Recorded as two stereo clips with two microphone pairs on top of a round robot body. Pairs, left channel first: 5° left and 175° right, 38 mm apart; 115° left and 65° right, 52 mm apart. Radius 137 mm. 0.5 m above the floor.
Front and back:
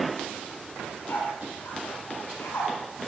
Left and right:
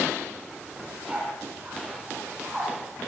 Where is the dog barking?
5° left, 7.5 m; by 2.7 s 15° left, 7.5 m.